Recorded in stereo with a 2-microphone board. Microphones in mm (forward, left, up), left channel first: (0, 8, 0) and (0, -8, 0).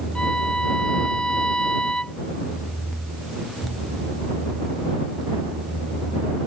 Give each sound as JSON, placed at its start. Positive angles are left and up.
{"t": 0.1, "sound": "a violin", "side_deg": 75}